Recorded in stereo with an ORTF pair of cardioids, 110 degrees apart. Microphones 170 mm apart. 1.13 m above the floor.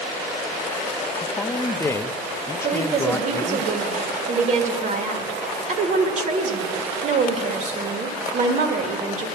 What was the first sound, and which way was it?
A man speaking, 15° left.